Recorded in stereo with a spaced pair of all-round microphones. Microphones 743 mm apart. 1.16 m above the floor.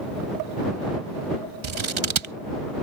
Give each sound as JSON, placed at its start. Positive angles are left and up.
{"t": 1.6, "sound": "scissors", "side_deg": -40}